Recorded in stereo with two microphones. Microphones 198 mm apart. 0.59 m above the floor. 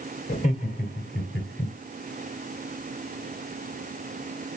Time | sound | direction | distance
0.3 | laughter | 35° left (ahead or behind) | 3 m